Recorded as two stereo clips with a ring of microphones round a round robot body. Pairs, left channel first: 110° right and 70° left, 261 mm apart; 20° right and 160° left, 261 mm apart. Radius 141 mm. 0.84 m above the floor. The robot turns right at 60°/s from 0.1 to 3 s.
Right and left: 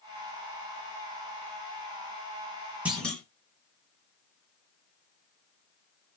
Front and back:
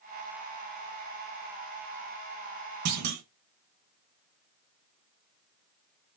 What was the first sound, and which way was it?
A clunk, 150° left.